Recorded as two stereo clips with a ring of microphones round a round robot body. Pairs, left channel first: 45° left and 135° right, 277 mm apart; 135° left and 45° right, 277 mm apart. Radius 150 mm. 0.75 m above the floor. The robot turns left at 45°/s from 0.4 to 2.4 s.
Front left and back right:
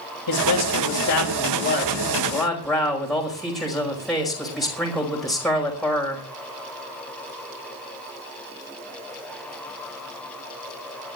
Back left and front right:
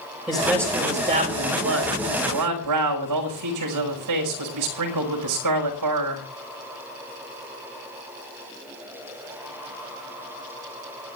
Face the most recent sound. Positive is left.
turn(degrees=-45)